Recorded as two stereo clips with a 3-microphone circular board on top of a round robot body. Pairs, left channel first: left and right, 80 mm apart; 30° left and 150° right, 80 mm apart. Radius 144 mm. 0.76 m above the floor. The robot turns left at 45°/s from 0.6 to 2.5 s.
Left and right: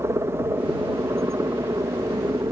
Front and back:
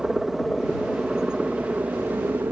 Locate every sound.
0.0 s a helicopter: 75° right; by 2.5 s 110° right